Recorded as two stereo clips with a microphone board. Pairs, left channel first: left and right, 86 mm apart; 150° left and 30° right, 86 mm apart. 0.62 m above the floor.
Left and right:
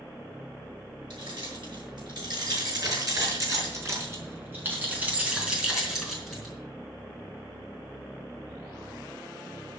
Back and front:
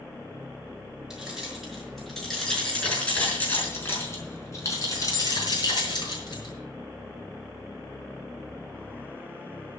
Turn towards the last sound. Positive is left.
turn(degrees=175)